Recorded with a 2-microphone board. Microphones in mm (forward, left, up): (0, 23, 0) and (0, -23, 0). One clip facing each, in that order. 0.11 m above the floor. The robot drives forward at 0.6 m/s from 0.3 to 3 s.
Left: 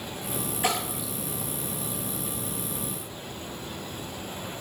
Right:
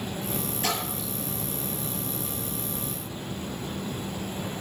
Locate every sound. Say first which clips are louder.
0.6 s a splash: left 4 dB; 15° left (ahead or behind), 2.5 m; by 1.1 s 10° left (ahead or behind), 2.5 m